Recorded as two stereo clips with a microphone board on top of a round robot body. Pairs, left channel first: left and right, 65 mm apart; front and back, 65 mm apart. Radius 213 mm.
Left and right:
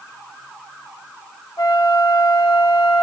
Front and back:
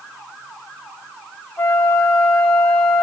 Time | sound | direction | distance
1.6 | a flute | 65° left | 0.5 m